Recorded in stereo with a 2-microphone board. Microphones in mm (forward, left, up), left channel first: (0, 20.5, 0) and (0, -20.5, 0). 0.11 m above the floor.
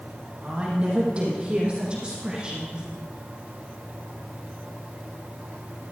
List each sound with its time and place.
0.4 s a woman speaking: 35° right (ahead or behind), 4 m; by 2.9 s 20° right (ahead or behind), 5 m